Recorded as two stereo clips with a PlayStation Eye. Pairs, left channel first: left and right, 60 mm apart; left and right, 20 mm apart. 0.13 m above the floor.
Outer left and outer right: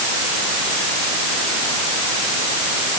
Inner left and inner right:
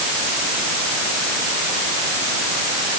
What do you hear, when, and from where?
Only background noise.